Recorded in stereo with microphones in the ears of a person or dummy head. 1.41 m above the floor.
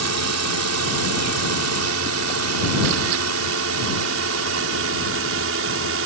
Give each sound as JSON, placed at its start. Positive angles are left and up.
{"t": 0.0, "sound": "a drone", "side_deg": -70}